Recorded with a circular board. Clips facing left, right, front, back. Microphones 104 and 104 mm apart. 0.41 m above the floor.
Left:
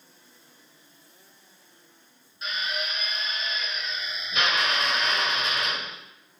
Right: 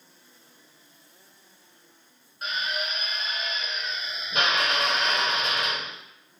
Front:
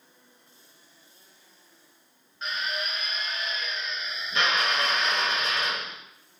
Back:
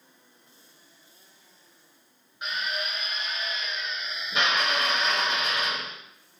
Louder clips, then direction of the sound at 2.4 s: Right 1 dB, even; 105° right.